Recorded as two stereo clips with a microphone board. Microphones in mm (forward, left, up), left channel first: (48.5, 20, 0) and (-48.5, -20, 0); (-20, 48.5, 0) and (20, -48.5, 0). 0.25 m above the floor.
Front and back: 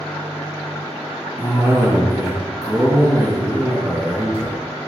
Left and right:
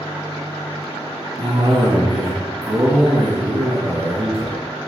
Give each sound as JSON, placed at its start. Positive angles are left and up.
{"t": 1.4, "sound": "a cough", "azimuth_deg": -90, "distance_m": 3.0}